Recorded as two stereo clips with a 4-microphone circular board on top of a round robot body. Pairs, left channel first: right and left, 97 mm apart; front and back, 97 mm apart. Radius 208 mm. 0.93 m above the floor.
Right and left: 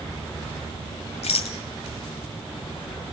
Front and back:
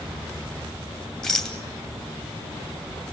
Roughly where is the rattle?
Right.